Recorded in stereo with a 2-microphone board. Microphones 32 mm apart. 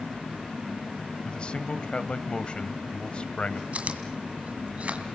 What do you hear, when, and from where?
1.2 s a man speaking: 30° left (ahead or behind), 1.2 m
3.7 s chewing: 50° right (ahead or behind), 2.5 m